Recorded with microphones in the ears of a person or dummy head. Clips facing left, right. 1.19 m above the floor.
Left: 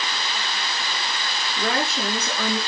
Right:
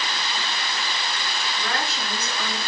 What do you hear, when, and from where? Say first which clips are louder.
1.6 s a woman speaking: left 7 dB; 80° left, 2.5 m